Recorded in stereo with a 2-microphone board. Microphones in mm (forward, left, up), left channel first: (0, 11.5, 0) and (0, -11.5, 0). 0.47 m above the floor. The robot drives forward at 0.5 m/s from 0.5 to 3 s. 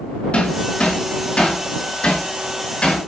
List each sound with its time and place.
0.3 s hammering: 60° left (ahead or behind), 6 m; by 3.1 s 50° left (ahead or behind), 6.5 m